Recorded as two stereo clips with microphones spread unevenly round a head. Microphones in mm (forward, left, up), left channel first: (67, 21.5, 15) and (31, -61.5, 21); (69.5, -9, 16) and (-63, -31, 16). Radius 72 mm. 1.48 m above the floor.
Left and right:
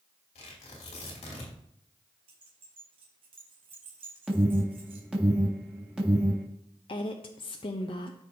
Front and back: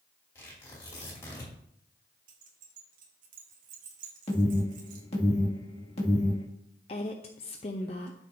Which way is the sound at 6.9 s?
55° left.